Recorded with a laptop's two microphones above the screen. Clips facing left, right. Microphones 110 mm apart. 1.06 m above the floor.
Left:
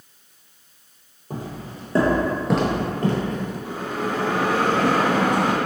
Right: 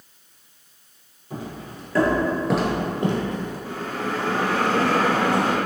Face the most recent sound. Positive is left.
turn(degrees=15)  # may be behind; listen again after turning